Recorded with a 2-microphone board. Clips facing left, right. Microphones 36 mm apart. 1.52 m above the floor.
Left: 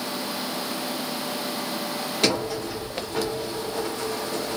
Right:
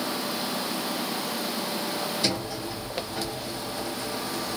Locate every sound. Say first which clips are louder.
2.2 s a sliding door: left 5 dB; 70° left (ahead or behind), 1.0 m